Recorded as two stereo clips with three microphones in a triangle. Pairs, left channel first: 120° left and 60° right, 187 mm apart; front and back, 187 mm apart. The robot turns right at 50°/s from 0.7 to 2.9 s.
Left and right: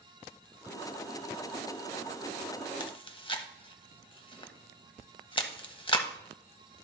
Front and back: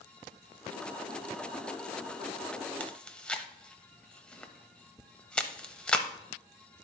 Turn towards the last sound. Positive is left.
turn(degrees=80)